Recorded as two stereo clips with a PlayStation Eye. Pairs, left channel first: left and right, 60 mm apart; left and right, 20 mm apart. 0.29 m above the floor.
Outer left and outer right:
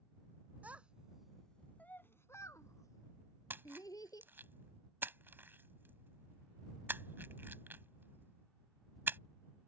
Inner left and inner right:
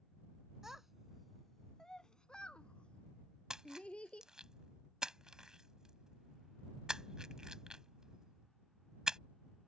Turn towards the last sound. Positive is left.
turn(degrees=-35)  # may be behind; listen again after turning